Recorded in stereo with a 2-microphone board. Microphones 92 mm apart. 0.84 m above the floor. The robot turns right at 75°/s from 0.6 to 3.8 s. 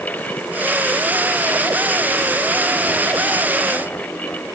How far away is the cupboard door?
I don't hear a cupboard door.